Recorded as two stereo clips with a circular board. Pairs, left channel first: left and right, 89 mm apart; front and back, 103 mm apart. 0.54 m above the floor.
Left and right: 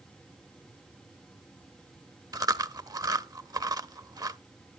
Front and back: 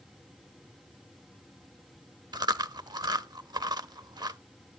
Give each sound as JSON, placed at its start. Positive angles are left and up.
{"t": 2.3, "sound": "chewing", "azimuth_deg": -135, "distance_m": 0.6}